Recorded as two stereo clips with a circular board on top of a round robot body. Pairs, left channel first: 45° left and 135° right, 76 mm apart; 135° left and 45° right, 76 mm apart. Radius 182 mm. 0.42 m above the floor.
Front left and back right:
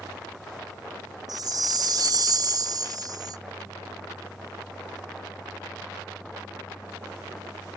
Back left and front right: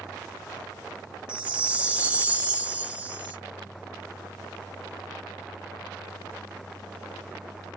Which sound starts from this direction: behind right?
A chime, at 1.3 s.